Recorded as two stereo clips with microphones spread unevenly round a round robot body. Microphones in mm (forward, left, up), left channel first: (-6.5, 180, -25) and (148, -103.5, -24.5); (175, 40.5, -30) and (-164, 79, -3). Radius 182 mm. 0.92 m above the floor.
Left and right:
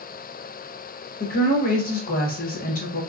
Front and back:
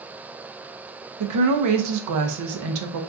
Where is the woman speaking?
175° left, 0.6 m.